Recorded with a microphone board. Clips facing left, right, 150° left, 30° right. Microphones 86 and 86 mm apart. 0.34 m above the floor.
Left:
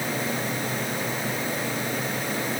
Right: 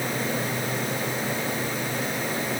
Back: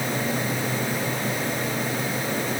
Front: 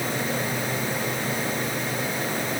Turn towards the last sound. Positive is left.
No sound to turn to.